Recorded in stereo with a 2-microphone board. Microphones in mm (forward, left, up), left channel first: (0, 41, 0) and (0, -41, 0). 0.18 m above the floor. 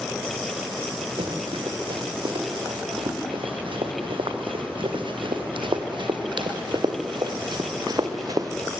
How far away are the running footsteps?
About 4.5 m.